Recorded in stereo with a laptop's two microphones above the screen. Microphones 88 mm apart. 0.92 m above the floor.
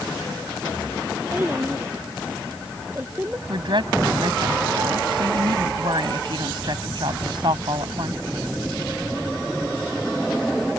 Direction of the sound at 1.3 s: 20° right (ahead or behind).